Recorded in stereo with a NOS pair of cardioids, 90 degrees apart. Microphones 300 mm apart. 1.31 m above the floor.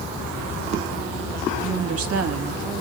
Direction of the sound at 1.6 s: 50° right.